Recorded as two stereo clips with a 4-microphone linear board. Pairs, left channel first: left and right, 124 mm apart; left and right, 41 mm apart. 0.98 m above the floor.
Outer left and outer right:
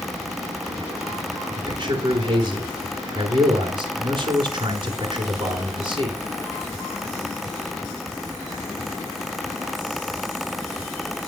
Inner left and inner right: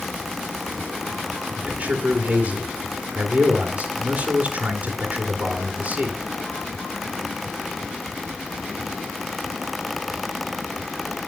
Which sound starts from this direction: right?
A man speaking, at 1.6 s.